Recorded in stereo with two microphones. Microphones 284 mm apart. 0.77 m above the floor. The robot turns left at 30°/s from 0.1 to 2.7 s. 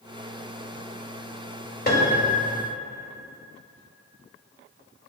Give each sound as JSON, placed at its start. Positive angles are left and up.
{"t": 1.9, "sound": "a piano", "side_deg": 35, "distance_m": 1.7}